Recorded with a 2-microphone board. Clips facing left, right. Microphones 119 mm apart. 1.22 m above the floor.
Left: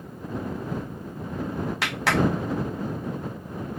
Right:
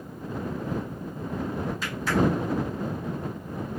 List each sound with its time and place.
1.8 s a clap: 75° left (ahead or behind)